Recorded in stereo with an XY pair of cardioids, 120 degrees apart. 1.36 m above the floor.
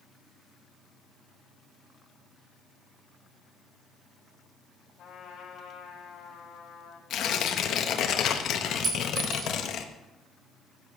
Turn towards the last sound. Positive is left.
turn(degrees=-40)